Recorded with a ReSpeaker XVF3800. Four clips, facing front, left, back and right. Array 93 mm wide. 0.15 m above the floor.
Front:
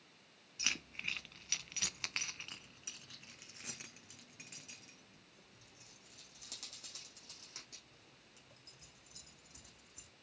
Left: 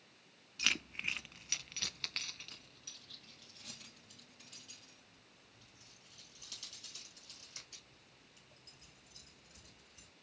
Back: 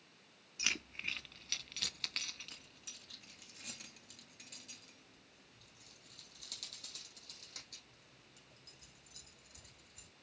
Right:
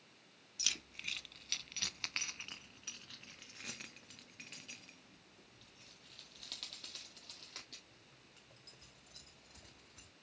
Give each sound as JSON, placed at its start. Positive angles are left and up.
{"t": 0.6, "sound": "keys jangling", "azimuth_deg": 95, "distance_m": 1.0}